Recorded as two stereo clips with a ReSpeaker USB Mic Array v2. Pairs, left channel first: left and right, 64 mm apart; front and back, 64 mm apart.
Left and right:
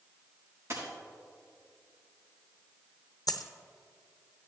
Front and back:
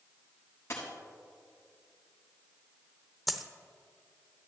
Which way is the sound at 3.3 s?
90° left.